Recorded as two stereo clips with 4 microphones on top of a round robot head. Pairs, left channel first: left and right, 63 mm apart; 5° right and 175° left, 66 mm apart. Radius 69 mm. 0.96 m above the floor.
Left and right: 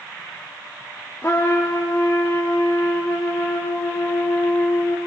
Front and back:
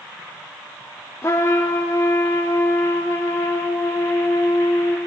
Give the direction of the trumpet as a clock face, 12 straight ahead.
11 o'clock.